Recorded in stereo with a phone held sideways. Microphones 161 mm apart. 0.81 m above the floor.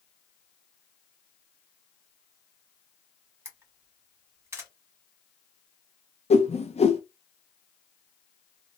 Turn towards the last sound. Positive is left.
turn(degrees=40)  # may be behind; listen again after turning